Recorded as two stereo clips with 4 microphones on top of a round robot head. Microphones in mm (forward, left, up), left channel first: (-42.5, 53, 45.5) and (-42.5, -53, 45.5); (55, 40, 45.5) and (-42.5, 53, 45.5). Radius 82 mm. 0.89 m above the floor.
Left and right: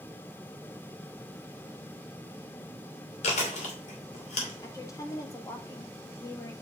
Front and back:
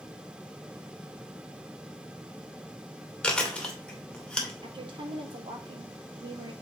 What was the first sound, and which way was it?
Chewing, 75° left.